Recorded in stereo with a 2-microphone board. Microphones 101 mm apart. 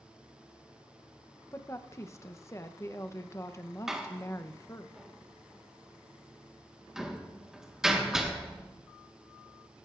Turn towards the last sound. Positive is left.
turn(degrees=-5)  # may be behind; listen again after turning